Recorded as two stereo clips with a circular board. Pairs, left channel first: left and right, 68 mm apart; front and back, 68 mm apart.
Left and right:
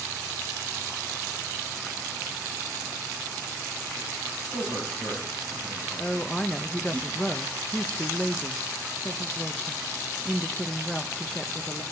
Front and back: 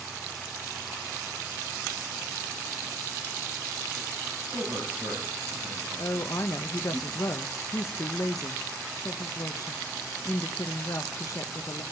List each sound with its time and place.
4.5 s a man speaking: 145° left, 6.5 m; by 7.0 s 130° left, 7 m
6.0 s a woman speaking: 20° left, 0.6 m